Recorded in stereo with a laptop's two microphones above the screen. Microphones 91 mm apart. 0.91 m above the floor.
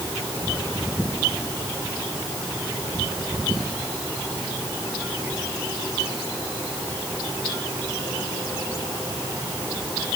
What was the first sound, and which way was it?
Only background noise.